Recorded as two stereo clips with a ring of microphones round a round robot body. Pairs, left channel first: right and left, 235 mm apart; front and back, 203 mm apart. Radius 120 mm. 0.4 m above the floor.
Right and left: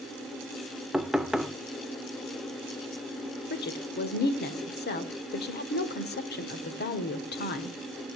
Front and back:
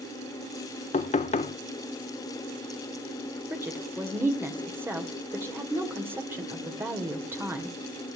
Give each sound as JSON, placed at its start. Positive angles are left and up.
{"t": 0.9, "sound": "knocking", "azimuth_deg": 5, "distance_m": 0.6}
{"t": 3.5, "sound": "a woman speaking", "azimuth_deg": -105, "distance_m": 1.7}